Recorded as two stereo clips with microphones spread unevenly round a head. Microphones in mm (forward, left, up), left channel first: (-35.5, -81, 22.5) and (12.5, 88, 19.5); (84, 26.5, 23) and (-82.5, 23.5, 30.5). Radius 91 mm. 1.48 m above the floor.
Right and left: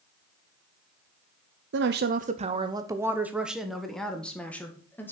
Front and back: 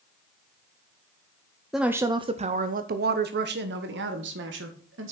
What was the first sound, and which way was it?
A woman speaking, 90° left.